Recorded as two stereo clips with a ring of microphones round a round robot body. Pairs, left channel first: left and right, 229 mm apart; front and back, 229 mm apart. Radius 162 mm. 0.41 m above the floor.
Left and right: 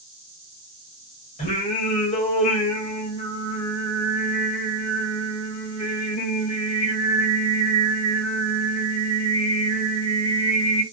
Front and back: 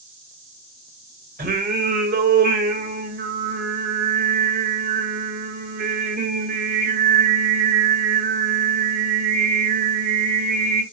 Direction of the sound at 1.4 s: 145° left.